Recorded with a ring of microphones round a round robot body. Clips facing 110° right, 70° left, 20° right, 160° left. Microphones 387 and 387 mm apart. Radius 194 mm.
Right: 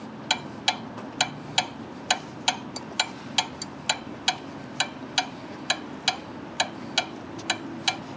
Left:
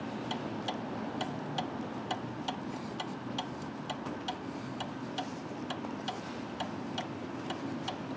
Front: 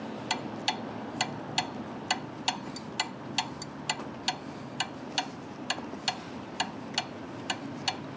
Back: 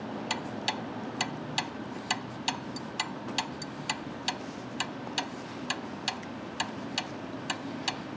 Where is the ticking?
105° right.